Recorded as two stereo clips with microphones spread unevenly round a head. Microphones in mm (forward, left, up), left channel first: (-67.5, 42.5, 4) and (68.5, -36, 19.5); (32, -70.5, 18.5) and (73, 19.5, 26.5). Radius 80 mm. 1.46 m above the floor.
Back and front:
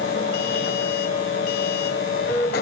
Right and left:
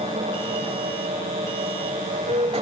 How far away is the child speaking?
I don't hear a child speaking.